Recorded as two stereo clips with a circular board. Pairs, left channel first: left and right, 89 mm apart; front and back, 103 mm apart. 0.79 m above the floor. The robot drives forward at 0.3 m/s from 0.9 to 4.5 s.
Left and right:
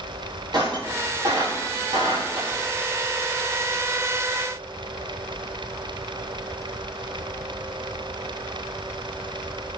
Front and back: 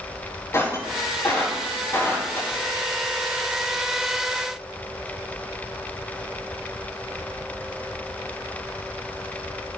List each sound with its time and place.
0.5 s breaking glass: 60° right, 6.5 m; by 2.6 s 65° right, 6 m